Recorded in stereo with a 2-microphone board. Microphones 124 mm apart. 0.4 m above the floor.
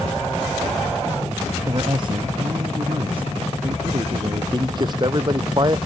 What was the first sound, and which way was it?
A man speaking, 40° right (ahead or behind).